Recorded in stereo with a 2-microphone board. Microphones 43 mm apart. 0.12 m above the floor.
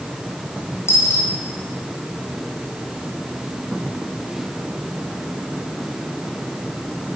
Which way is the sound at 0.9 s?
65° left (ahead or behind).